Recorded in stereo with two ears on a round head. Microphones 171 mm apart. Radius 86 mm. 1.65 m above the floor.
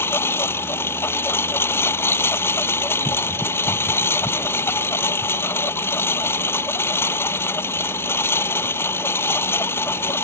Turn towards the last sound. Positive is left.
turn(degrees=10)  # may be behind; listen again after turning